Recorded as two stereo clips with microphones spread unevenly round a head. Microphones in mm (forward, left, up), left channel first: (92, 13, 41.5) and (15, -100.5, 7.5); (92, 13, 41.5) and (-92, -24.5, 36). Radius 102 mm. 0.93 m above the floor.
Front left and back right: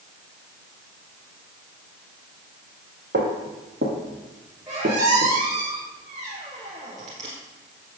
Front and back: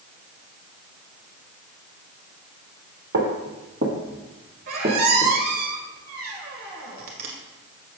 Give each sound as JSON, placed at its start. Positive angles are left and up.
{"t": 3.1, "sound": "footsteps", "azimuth_deg": -160, "distance_m": 1.7}
{"t": 4.7, "sound": "a squeak", "azimuth_deg": 155, "distance_m": 1.3}